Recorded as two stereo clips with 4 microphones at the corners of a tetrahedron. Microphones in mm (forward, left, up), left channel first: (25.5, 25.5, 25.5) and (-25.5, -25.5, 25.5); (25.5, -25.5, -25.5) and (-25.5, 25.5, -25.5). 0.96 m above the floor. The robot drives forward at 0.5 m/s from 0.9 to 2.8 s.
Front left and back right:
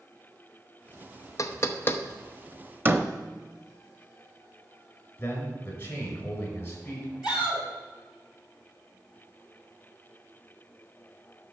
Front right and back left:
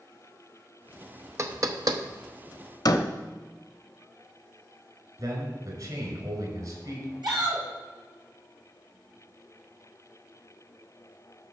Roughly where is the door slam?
Right.